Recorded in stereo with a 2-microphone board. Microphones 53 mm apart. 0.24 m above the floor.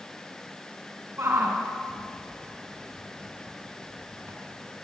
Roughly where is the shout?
Right.